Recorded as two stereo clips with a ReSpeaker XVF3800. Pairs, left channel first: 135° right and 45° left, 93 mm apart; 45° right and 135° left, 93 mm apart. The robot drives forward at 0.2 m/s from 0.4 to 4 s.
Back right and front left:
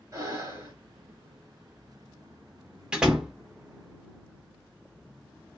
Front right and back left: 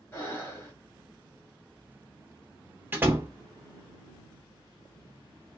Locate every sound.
0.1 s breathing: 10° left, 1.7 m
2.9 s a door slam: 110° left, 0.8 m; by 3.3 s 120° left, 0.8 m